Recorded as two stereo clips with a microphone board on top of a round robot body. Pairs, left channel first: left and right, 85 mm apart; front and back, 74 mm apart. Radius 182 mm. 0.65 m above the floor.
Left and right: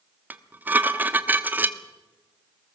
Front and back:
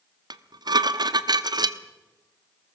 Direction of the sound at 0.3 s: 160° right.